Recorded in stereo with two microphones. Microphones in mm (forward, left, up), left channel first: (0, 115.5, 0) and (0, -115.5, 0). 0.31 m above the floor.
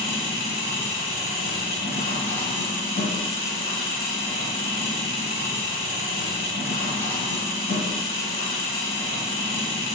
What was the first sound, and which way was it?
An engine running, 60° left (ahead or behind).